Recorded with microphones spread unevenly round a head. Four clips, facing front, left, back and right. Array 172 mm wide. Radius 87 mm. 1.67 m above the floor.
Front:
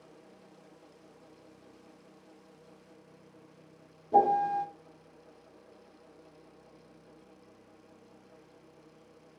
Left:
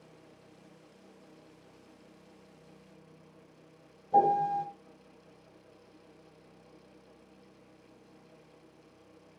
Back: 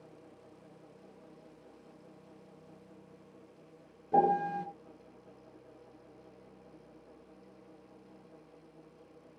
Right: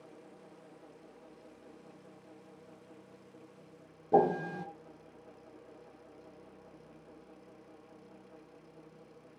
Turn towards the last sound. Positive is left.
turn(degrees=-85)